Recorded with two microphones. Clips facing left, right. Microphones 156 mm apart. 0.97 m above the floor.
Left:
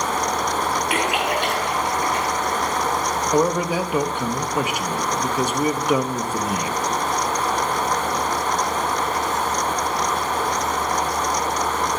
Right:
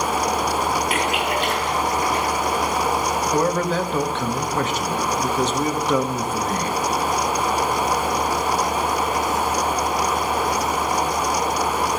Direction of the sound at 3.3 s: 10° left (ahead or behind).